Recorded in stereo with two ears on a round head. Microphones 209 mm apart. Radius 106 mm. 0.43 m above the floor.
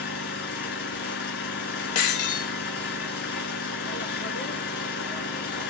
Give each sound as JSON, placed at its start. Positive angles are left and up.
{"t": 0.0, "sound": "an engine running", "side_deg": 50, "distance_m": 2.0}
{"t": 1.9, "sound": "breaking glass", "side_deg": 80, "distance_m": 0.7}